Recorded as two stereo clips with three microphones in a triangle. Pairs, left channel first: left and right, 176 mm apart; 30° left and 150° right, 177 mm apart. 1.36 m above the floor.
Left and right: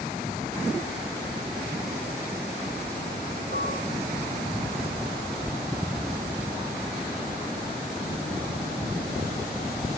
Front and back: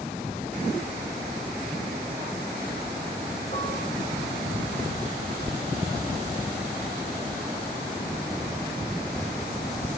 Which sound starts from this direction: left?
Dishes clattering, at 3.5 s.